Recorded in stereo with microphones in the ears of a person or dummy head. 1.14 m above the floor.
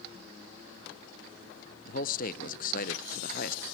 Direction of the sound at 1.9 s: 40° left (ahead or behind).